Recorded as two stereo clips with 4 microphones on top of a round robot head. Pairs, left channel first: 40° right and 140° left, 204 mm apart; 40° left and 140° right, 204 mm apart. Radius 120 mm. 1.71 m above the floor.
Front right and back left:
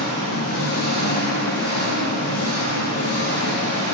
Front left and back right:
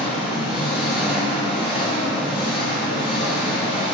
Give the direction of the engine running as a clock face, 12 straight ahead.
2 o'clock.